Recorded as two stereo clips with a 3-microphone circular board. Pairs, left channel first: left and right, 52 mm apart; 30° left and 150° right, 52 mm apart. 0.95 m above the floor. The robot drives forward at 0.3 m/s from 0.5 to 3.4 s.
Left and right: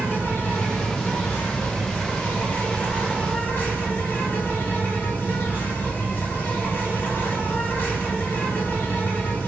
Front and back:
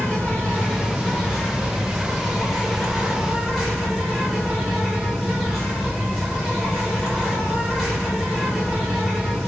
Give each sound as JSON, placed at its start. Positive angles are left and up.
{"t": 0.0, "sound": "an insect", "azimuth_deg": 75, "distance_m": 1.3}